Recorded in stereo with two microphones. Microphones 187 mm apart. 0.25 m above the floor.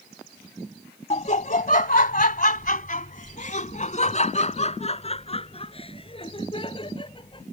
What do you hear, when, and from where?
1.1 s laughter: 40° left (ahead or behind); by 7.4 s 25° left (ahead or behind)